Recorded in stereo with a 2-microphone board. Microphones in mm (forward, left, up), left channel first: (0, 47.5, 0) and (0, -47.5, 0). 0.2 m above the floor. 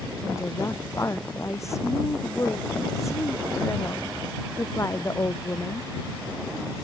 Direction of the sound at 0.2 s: 30° left (ahead or behind).